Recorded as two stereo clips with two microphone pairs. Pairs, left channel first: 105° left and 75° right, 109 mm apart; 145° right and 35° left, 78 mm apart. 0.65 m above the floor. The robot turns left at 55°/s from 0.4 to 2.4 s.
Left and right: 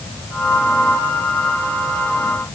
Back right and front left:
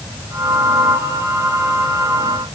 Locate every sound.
Only background noise.